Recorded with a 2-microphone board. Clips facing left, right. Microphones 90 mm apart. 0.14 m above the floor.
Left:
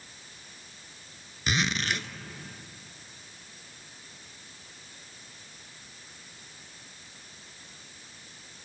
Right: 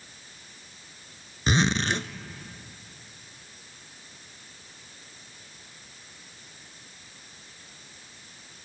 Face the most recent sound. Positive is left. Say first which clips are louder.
# right 5 dB
turn(degrees=-30)  # may be behind; listen again after turning